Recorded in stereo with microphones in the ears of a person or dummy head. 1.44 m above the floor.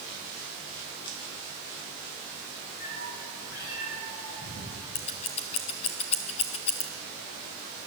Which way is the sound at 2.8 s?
45° left (ahead or behind).